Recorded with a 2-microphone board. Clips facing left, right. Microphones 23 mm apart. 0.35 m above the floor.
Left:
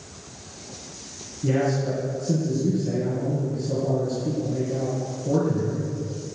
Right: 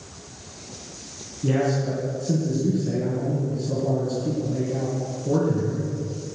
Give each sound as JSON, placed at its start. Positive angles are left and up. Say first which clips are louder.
{"t": 1.4, "sound": "a man speaking", "louder": "even", "side_deg": -10, "distance_m": 3.5}